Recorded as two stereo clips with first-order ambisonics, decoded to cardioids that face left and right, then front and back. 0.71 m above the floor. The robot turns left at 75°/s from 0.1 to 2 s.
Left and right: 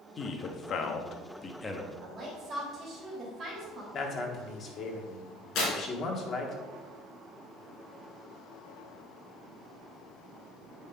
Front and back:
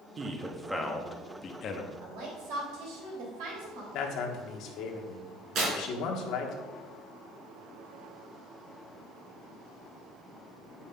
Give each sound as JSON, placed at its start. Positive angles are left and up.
{"t": 0.2, "sound": "a man speaking", "azimuth_deg": 130, "distance_m": 0.9}
{"t": 2.0, "sound": "a woman speaking", "azimuth_deg": -160, "distance_m": 3.5}
{"t": 3.9, "sound": "a man speaking", "azimuth_deg": 35, "distance_m": 1.4}
{"t": 5.5, "sound": "tearing paper", "azimuth_deg": 130, "distance_m": 3.0}